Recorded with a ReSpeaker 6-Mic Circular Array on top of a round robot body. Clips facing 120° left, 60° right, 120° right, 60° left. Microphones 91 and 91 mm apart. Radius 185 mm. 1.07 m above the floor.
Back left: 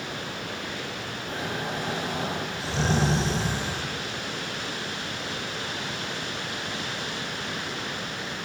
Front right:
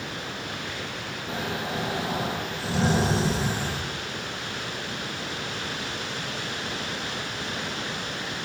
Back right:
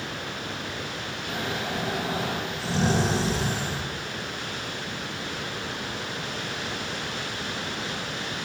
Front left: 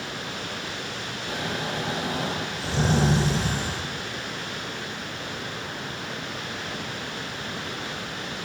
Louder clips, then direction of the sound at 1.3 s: Front right 1 dB, even; 20° left.